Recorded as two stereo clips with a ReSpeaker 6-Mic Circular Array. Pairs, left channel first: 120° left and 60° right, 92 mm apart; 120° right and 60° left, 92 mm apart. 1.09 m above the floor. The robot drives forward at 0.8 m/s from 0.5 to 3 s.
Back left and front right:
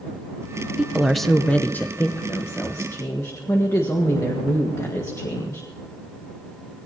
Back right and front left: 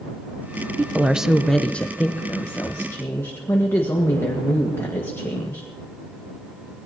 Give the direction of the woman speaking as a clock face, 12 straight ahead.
12 o'clock.